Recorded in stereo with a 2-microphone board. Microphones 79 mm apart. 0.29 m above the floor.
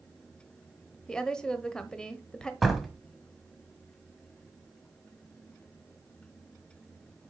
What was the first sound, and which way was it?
A woman speaking, 10° left (ahead or behind).